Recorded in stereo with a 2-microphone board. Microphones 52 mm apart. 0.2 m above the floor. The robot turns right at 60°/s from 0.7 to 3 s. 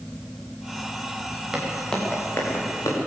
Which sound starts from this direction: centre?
Footsteps, at 1.5 s.